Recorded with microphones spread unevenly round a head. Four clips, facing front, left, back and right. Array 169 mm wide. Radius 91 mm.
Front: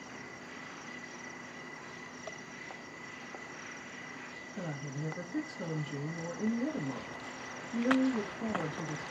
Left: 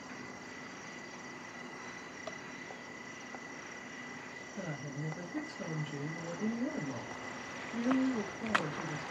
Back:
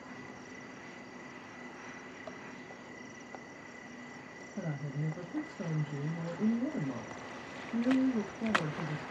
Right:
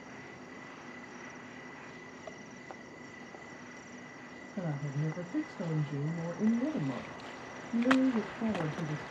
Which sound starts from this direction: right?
A woman speaking, at 4.6 s.